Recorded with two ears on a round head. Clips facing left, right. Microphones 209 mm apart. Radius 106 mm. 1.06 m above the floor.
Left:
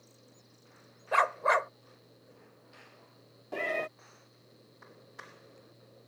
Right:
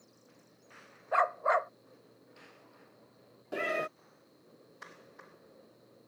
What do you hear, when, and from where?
1.1 s a dog barking: 40° left (ahead or behind)
3.5 s a cat meowing: 10° right (ahead or behind)